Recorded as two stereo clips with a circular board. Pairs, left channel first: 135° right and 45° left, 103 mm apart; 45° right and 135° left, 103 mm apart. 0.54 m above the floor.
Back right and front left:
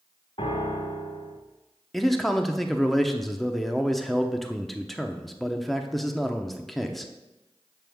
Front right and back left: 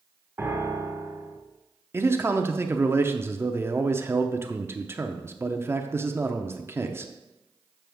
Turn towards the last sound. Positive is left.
turn(degrees=140)